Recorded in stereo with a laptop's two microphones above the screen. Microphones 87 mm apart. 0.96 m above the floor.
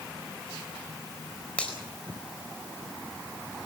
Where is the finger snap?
15° left (ahead or behind), 4 m.